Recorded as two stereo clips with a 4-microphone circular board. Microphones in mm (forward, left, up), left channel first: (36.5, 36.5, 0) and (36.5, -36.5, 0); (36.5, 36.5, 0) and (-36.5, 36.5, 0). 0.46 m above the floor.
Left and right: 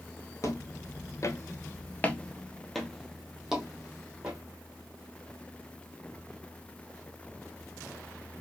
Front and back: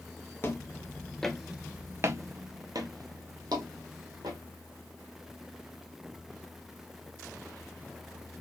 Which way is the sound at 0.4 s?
50° left.